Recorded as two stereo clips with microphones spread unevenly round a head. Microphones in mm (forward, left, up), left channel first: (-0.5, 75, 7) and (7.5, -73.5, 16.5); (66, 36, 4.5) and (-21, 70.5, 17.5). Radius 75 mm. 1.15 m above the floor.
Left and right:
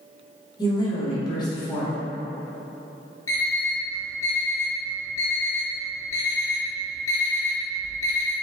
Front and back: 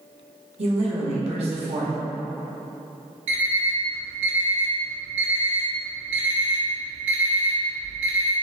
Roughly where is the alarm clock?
Behind.